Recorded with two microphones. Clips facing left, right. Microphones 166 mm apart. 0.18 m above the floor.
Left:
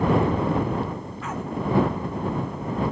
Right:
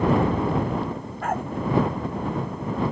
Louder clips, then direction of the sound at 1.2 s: Right 6 dB; 55° right (ahead or behind).